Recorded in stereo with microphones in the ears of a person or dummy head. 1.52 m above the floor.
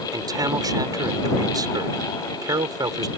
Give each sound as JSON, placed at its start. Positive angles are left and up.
{"t": 0.1, "sound": "a man speaking", "side_deg": -15}